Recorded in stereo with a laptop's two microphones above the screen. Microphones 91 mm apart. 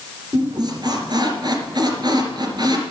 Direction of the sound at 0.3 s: 50° right (ahead or behind).